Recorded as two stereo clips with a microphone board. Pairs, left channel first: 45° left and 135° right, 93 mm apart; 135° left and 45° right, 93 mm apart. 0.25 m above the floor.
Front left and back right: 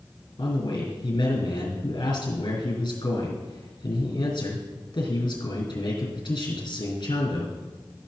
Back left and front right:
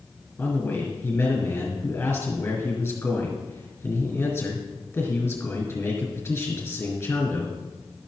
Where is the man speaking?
70° left, 3.5 m.